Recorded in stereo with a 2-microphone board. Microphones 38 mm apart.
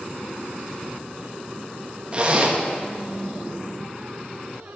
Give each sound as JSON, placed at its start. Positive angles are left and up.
{"t": 2.1, "sound": "a zipper", "side_deg": -30, "distance_m": 0.9}